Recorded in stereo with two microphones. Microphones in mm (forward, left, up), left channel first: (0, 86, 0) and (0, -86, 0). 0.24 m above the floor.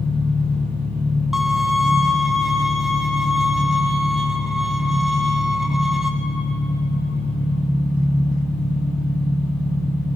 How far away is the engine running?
About 5 m.